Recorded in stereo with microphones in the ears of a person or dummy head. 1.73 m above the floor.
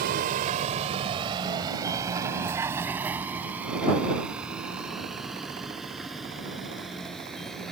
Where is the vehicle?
60° right (ahead or behind); by 7.7 s centre (ahead or behind).